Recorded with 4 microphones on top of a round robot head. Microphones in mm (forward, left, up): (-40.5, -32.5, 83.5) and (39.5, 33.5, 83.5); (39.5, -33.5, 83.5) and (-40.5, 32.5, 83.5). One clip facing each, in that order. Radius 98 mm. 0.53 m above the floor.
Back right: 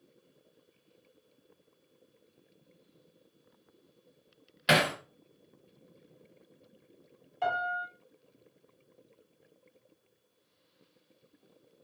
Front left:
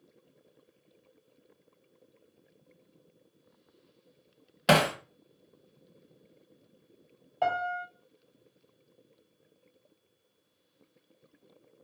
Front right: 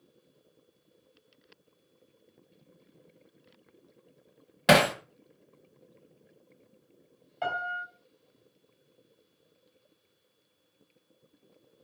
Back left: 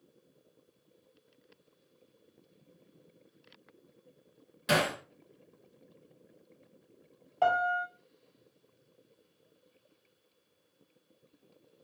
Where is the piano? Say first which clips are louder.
Front left 2 dB, back left 6 dB; 85° left, 4.5 m.